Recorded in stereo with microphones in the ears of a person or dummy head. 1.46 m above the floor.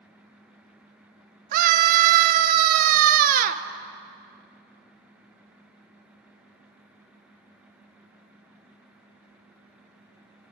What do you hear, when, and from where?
1.5 s a scream: 40° right (ahead or behind), 1.1 m